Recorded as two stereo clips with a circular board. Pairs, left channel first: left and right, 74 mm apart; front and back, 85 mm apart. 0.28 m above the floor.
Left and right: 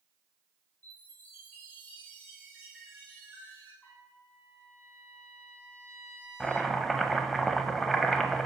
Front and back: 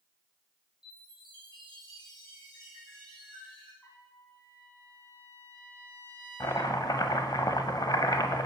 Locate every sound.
0.8 s a chime: 25° left, 3.5 m
3.8 s a trumpet: 50° left, 1.8 m
6.4 s chopping: 5° left, 0.5 m